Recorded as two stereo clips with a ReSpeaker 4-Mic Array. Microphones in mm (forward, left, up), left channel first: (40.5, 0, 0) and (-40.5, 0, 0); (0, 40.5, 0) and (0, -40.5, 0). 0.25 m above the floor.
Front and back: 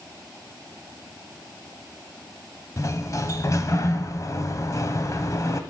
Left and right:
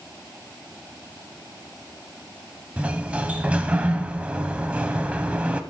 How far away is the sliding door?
About 0.7 m.